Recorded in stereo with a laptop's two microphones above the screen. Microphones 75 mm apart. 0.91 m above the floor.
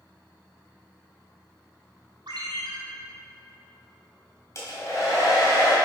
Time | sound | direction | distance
2.3 | a ringtone | 70° right (ahead or behind) | 2.5 m
4.5 | a hair dryer | 45° left (ahead or behind) | 1.9 m